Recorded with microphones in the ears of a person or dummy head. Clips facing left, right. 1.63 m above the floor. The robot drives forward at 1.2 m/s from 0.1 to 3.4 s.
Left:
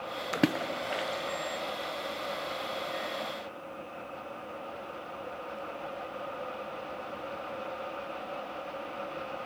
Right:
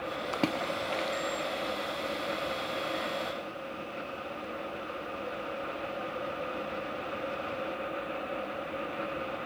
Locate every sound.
0.3 s a splash: 20° left (ahead or behind), 0.5 m; by 1.4 s 5° left (ahead or behind), 1.8 m